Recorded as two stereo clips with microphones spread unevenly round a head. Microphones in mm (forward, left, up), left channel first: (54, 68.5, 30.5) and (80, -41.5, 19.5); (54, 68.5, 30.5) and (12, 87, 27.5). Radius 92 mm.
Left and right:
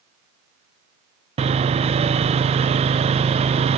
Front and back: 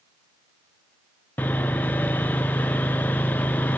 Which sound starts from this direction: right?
Sawing, at 1.4 s.